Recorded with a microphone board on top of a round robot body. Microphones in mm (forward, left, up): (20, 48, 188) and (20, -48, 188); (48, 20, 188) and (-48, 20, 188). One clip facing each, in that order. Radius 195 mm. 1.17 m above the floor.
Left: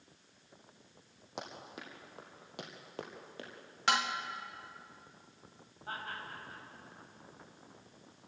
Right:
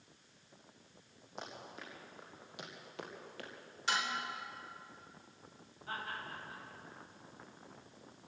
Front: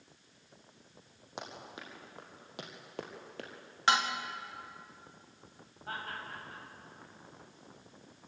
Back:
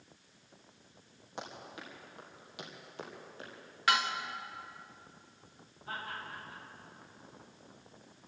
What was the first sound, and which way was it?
Running footsteps, 70° left.